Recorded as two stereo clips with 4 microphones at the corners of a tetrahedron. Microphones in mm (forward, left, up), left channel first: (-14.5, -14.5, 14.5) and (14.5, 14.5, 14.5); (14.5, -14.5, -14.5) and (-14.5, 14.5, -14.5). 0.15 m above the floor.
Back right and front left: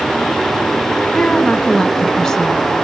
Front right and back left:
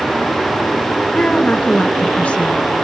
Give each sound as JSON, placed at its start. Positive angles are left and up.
{"t": 1.1, "sound": "a woman speaking", "azimuth_deg": -65, "distance_m": 1.9}